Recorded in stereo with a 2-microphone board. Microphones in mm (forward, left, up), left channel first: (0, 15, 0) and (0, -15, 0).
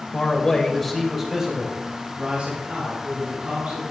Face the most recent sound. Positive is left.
turn(degrees=-50)  # may be behind; listen again after turning